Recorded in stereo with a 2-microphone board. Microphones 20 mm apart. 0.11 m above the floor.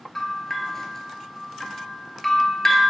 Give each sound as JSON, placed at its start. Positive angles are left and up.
{"t": 0.1, "sound": "a bell", "side_deg": 20, "distance_m": 0.5}